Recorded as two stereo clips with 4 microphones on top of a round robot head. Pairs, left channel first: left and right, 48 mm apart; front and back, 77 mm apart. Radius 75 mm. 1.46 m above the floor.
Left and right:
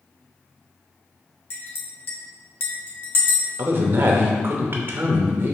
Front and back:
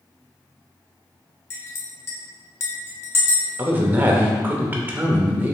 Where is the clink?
55° left, 0.6 m.